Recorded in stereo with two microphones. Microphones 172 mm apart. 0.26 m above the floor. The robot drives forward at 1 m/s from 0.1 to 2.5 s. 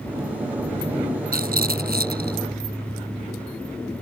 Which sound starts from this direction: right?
A rattle, at 1.3 s.